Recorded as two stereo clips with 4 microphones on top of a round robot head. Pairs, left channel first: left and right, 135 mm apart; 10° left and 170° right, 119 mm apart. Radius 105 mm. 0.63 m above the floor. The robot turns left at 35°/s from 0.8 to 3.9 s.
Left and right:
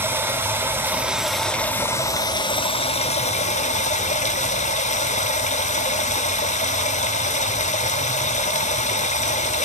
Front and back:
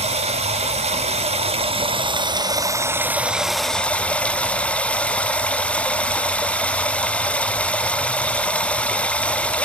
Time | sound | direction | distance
0.0 | running water | 160° right | 0.9 m